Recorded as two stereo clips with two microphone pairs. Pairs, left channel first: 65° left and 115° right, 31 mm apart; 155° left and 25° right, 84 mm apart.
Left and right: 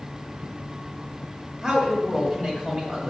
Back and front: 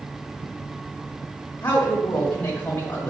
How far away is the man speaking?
About 1.8 m.